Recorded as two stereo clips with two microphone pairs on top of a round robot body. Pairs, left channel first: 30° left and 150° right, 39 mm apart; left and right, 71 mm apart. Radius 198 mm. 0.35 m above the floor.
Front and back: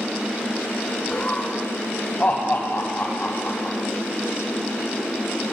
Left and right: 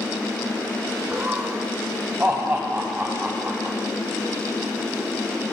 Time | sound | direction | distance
1.1 | laughter | 20° right | 2.5 m